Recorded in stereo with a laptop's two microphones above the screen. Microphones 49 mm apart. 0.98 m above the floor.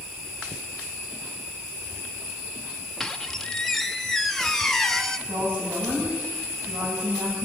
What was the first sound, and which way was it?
A squeak, 5° left (ahead or behind).